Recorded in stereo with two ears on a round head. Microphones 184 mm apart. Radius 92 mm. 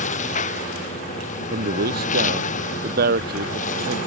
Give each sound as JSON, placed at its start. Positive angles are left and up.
{"t": 0.0, "sound": "a lawn mower", "side_deg": 35}
{"t": 1.5, "sound": "a man speaking", "side_deg": -50}